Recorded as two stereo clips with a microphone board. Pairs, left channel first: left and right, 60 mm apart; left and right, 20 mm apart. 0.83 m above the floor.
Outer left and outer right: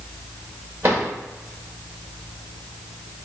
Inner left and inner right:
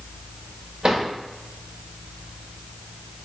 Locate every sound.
0.8 s a drawer: 55° right (ahead or behind), 2 m